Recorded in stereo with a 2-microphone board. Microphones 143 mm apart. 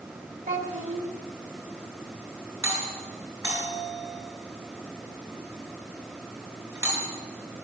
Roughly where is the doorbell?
Right.